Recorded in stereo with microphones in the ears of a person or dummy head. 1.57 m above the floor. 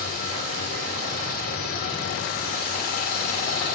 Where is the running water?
50° left (ahead or behind), 2.5 m.